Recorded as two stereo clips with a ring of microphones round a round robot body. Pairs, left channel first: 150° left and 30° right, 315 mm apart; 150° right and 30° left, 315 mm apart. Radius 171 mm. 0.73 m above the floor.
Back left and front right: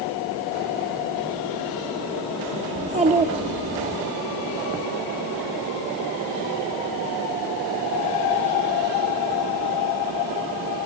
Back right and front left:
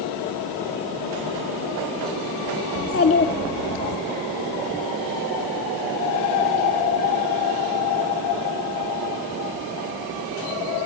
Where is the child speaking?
100° right, 0.8 m.